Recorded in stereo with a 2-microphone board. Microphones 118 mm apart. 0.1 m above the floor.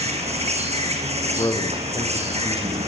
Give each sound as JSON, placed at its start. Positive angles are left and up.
{"t": 0.0, "sound": "an insect", "side_deg": -70, "distance_m": 3.5}
{"t": 1.2, "sound": "a man speaking", "side_deg": 35, "distance_m": 5.0}